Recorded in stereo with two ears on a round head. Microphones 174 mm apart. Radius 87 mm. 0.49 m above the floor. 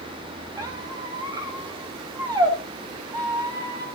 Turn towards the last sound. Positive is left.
turn(degrees=-15)  # may be behind; listen again after turning